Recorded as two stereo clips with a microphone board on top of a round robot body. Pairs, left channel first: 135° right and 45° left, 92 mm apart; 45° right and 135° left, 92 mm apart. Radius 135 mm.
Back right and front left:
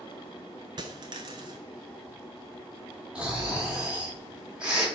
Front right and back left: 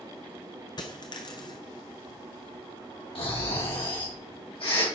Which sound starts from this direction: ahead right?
Snoring, at 3.1 s.